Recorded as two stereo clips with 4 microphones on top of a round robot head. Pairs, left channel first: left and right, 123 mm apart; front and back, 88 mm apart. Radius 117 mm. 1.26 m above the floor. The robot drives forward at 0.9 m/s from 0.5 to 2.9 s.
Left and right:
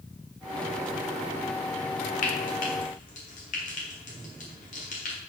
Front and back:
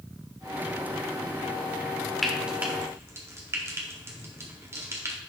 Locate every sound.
2.2 s frying: 90° left, 1.2 m; by 5.2 s 125° left, 1.3 m